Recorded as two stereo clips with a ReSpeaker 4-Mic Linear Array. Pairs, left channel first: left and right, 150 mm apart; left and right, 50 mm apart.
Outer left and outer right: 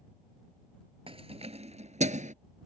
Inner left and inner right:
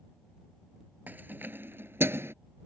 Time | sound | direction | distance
1.1 | keys jangling | 40° right (ahead or behind) | ?